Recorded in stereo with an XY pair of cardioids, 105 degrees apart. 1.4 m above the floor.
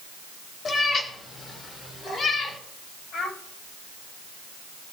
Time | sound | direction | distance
0.7 | a cat meowing | 45° left | 1.9 m
3.1 | a child speaking | 65° left | 5.5 m